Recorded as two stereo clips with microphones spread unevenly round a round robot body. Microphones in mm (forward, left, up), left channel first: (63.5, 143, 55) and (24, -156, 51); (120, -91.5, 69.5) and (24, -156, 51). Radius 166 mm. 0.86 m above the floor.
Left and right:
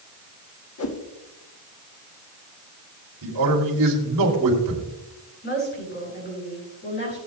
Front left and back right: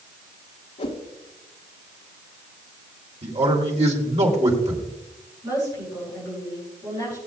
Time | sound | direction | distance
0.8 | a whoosh | 50° left | 1.4 m
3.2 | a man speaking | 125° right | 3 m
5.4 | a woman speaking | 145° left | 6.5 m